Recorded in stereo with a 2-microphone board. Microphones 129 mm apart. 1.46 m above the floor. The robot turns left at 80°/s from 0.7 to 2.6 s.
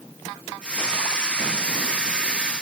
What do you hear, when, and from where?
Only background noise.